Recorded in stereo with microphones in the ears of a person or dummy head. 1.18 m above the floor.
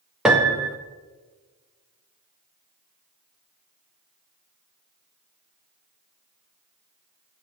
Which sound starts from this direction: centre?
A piano, at 0.2 s.